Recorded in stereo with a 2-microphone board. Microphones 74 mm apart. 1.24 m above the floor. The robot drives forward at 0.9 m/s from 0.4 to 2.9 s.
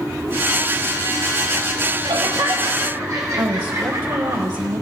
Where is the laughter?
85° right, 0.7 m; by 4.4 s 45° right (ahead or behind), 1.0 m.